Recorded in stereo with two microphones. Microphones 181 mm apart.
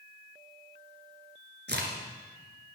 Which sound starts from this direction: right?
A crack, at 1.7 s.